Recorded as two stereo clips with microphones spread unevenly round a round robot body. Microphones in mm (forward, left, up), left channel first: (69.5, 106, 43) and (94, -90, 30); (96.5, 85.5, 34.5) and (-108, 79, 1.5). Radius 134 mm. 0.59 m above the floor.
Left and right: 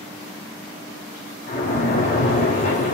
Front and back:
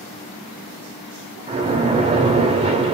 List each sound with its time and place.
1.5 s a splash: 140° left, 0.8 m